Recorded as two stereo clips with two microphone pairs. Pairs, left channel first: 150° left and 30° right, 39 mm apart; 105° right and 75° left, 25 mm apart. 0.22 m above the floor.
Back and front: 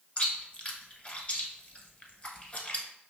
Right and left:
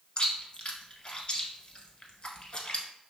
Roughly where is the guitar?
No guitar in this recording.